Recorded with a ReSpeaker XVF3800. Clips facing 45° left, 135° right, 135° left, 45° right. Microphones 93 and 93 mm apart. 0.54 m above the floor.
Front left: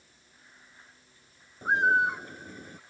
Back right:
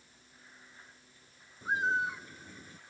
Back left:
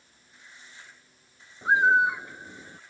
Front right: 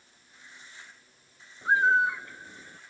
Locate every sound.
1.6 s a bird: 65° left